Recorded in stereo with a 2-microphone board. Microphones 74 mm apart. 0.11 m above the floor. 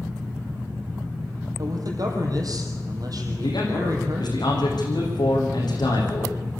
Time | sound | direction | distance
1.6 | a man speaking | 55° right (ahead or behind) | 4 m
3.4 | a man speaking | 70° left (ahead or behind) | 6.5 m